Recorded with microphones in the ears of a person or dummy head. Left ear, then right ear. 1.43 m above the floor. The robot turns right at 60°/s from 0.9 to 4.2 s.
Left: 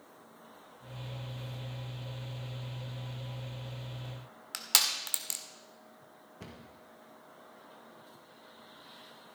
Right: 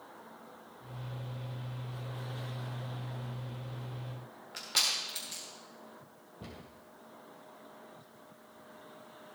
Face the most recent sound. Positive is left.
turn(degrees=60)  # may be behind; listen again after turning